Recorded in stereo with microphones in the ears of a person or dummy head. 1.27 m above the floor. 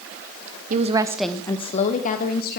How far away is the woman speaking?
About 0.8 m.